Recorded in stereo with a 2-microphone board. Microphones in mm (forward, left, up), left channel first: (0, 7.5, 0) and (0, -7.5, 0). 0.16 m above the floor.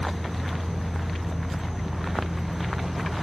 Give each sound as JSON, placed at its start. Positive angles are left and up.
{"t": 0.0, "sound": "an insect", "side_deg": 20, "distance_m": 5.0}